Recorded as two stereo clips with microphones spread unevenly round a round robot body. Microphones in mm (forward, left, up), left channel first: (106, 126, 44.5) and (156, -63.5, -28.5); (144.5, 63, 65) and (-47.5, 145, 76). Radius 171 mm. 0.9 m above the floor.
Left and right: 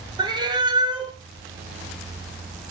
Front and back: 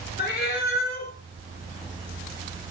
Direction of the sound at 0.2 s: 5° left.